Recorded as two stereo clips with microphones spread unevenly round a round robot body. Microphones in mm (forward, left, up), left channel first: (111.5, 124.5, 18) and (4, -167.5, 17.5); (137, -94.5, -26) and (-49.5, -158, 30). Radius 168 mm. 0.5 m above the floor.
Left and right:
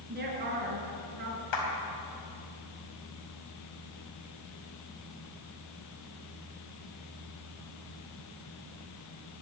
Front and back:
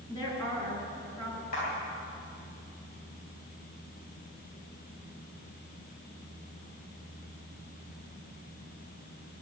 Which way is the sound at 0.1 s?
50° right.